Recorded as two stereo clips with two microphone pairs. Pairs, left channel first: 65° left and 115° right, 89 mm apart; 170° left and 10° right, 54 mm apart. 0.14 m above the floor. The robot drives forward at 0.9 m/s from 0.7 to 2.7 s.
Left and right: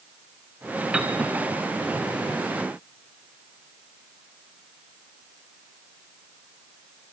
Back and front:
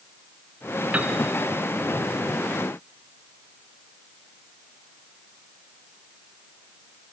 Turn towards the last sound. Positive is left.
turn(degrees=-135)